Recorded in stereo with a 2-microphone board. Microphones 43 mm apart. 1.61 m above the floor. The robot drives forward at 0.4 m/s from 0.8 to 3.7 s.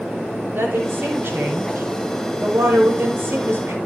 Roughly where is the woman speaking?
Right.